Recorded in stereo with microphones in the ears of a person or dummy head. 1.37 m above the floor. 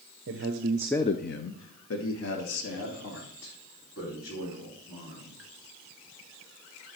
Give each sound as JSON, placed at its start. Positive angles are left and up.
{"t": 0.3, "sound": "a man speaking", "side_deg": -65, "distance_m": 0.9}